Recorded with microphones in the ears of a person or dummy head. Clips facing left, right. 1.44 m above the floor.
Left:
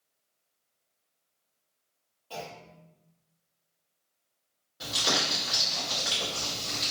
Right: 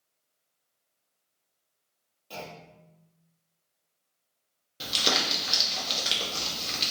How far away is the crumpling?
About 0.9 m.